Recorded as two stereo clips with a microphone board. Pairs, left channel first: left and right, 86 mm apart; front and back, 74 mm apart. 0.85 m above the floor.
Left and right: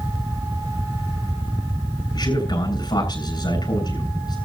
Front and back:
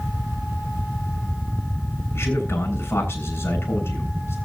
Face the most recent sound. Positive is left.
turn(degrees=60)